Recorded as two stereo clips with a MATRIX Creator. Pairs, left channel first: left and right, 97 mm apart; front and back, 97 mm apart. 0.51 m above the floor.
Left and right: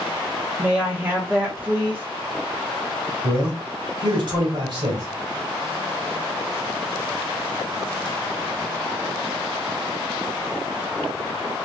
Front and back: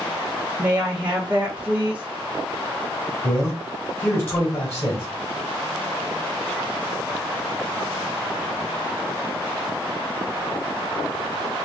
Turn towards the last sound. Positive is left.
turn(degrees=-65)